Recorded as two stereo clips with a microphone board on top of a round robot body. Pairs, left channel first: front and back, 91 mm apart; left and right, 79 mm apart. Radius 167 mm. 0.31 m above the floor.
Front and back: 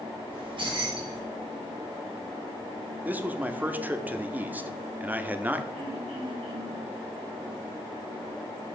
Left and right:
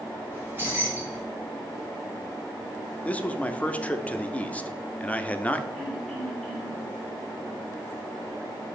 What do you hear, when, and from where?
0.3 s keys jangling: 150° right, 3 m
3.0 s a man speaking: 135° left, 0.9 m
5.7 s throat clearing: 175° left, 4 m